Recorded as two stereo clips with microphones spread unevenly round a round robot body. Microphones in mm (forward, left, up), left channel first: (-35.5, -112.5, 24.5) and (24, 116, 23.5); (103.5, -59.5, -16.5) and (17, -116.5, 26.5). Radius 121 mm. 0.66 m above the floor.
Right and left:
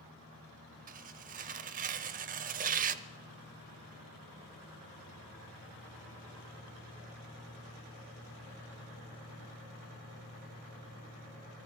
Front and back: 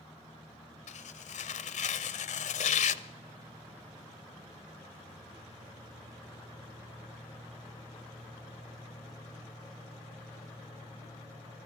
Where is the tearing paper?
20° left, 0.6 m.